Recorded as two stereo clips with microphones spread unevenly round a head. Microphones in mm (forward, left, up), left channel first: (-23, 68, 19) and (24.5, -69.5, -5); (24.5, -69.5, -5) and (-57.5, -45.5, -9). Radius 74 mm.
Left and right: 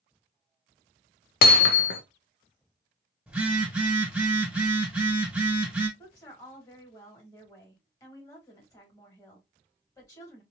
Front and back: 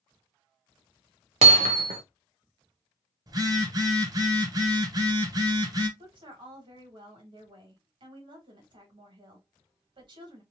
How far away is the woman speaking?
About 1.9 m.